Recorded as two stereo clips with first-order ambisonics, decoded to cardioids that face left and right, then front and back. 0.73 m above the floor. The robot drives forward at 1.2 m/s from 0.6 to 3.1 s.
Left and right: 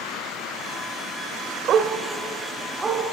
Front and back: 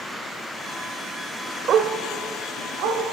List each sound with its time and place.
1.7 s a dog barking: 130° right, 0.7 m; by 3.0 s 170° right, 2 m